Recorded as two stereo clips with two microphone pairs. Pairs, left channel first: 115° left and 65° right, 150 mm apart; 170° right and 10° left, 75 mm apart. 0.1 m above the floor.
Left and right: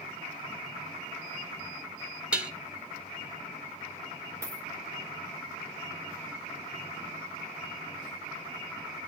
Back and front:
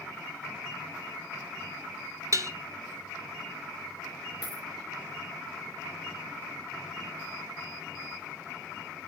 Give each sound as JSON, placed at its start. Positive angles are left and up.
{"t": 2.3, "sound": "dishes clattering", "azimuth_deg": 15, "distance_m": 1.2}
{"t": 4.4, "sound": "a dropped coin", "azimuth_deg": -140, "distance_m": 2.0}